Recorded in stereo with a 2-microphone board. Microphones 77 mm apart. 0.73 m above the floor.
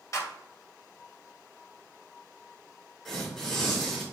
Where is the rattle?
I don't hear a rattle.